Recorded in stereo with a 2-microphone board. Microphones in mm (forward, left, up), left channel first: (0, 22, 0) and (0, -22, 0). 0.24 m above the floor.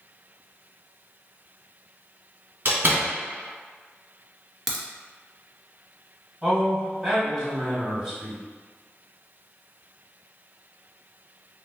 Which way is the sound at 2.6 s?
55° right (ahead or behind).